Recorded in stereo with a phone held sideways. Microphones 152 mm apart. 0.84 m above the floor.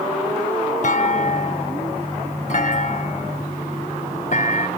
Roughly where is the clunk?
Left.